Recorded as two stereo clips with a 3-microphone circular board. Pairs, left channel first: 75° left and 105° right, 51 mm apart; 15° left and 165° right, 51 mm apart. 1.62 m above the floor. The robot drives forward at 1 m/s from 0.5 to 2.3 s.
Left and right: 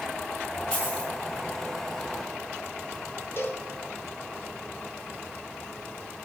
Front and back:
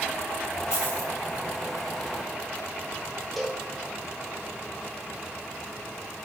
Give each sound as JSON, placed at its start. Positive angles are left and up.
{"t": 0.7, "sound": "a dropped coin", "azimuth_deg": 0, "distance_m": 8.5}
{"t": 3.4, "sound": "a cowbell", "azimuth_deg": 105, "distance_m": 2.0}